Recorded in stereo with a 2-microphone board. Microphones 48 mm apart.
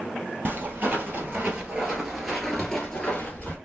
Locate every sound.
0.5 s footsteps: 45° right (ahead or behind), 1.6 m; by 3.5 s 30° left (ahead or behind), 1.3 m